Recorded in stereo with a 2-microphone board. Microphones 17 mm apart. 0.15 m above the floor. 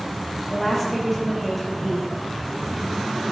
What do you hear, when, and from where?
0.5 s a woman speaking: 5° left (ahead or behind), 4 m